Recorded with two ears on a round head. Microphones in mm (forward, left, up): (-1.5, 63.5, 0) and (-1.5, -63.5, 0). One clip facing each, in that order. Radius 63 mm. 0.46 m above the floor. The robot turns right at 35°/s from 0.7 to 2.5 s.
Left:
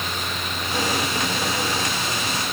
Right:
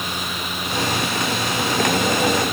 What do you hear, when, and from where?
Only background noise.